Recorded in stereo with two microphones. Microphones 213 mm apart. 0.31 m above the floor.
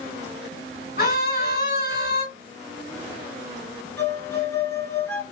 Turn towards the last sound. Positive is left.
turn(degrees=10)  # may be behind; listen again after turning